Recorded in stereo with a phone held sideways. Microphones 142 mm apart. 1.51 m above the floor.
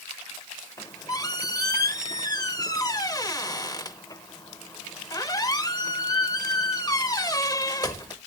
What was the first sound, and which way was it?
A squeak, 25° left (ahead or behind).